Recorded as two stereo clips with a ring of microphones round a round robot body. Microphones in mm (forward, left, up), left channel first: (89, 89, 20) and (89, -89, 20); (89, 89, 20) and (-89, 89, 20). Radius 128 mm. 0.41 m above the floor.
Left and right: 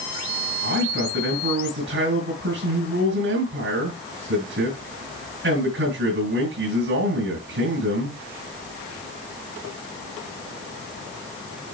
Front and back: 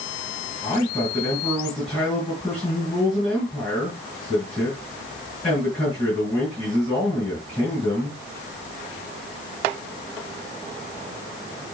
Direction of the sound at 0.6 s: 85° right.